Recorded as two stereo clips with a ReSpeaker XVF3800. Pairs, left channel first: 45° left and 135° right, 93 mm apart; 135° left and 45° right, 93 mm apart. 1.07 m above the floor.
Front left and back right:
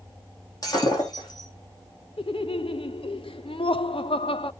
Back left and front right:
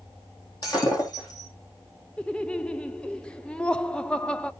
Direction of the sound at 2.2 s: 55° left.